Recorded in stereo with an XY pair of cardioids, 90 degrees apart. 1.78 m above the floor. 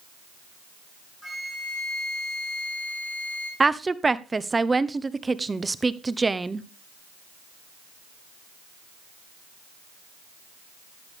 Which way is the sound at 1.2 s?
5° left.